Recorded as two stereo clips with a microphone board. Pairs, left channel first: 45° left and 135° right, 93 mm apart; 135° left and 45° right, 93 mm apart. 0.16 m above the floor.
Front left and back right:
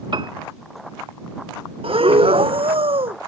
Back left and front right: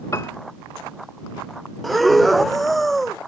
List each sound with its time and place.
0.1 s a piano: 165° right
1.8 s breathing: 135° right